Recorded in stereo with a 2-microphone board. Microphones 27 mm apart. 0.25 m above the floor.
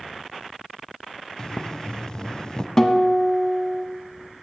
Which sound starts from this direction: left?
Boiling, at 1.4 s.